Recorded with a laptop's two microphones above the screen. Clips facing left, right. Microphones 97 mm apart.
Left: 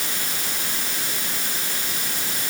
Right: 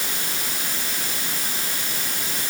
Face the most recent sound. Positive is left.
No sound to turn to.